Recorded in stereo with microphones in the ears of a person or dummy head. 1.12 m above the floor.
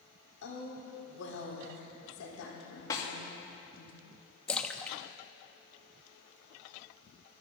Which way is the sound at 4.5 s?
10° left (ahead or behind).